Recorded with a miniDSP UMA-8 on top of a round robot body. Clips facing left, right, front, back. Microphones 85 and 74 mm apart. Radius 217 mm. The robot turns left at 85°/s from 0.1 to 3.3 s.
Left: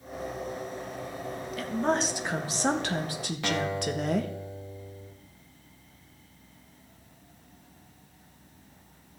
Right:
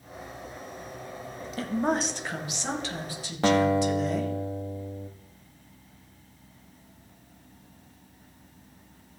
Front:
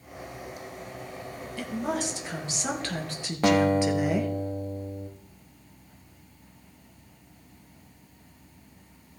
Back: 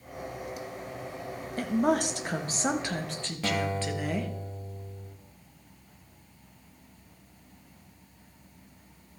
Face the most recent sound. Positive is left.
turn(degrees=-35)